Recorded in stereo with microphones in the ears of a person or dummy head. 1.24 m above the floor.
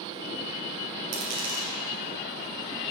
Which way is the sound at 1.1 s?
40° right (ahead or behind).